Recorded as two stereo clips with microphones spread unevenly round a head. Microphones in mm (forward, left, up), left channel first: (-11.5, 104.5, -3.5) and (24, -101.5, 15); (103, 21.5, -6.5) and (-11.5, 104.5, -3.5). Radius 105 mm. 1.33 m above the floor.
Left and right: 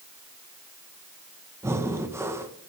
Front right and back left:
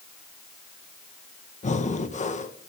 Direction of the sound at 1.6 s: Straight ahead.